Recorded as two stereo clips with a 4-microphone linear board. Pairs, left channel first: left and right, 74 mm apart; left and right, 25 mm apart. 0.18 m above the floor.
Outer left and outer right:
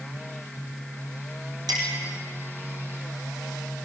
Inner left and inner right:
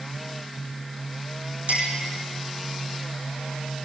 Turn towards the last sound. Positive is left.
turn(degrees=-65)  # may be behind; listen again after turning